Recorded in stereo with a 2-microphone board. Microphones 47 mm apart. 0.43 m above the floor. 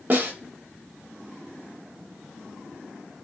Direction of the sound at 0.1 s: 40° right (ahead or behind).